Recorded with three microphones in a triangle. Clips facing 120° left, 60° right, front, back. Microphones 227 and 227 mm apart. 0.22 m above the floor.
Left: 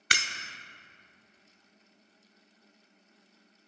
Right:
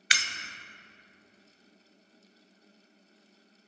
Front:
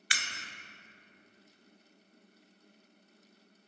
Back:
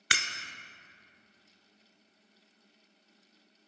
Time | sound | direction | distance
0.1 | breaking glass | 160° left | 0.9 m